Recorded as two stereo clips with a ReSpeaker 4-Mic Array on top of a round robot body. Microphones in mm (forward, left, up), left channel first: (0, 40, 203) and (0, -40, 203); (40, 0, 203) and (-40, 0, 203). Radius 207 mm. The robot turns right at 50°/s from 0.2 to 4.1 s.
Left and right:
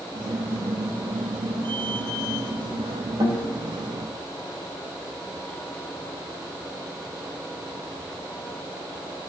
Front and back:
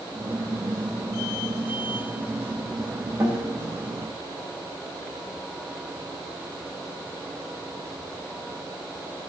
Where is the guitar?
115° right, 3.5 m; by 3.5 s 105° right, 3.5 m.